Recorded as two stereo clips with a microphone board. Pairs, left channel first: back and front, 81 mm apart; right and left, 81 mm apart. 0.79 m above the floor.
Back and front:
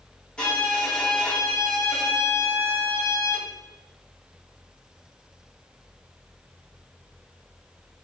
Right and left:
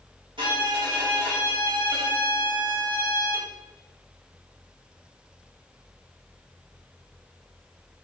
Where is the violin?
100° left, 2.5 m.